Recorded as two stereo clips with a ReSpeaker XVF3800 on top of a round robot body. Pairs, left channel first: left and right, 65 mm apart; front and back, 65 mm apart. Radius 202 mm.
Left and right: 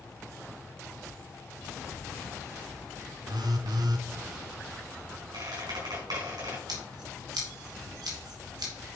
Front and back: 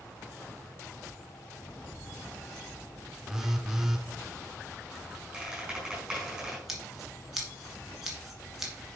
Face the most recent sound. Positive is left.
turn(degrees=-95)